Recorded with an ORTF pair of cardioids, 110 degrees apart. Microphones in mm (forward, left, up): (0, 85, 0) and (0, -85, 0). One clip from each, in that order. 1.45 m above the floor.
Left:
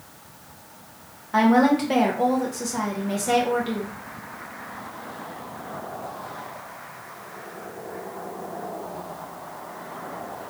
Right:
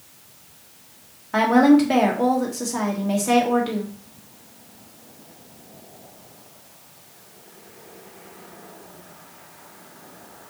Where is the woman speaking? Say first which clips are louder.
Right 3 dB; 10° right, 1.4 m.